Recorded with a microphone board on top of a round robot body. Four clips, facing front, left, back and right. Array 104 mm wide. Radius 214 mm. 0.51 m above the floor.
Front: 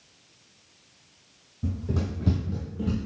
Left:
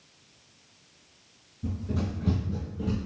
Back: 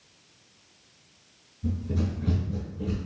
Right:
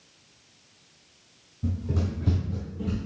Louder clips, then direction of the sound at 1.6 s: Right 1 dB, back 1 dB; 15° right.